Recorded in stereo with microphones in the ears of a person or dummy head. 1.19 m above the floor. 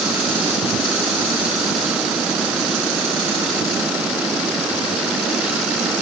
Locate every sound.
Only background noise.